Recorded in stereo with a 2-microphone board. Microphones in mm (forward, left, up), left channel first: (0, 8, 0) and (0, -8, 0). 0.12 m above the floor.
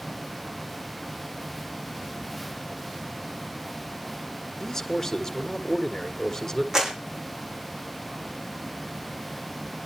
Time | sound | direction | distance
4.6 | a man speaking | 30° left (ahead or behind) | 1.9 m
6.7 | a clap | 30° right (ahead or behind) | 5.5 m